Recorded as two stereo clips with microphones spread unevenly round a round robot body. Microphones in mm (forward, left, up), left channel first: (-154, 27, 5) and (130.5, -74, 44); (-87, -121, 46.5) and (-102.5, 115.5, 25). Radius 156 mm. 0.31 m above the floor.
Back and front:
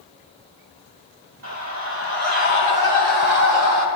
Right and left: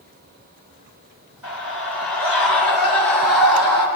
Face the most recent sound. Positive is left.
turn(degrees=-10)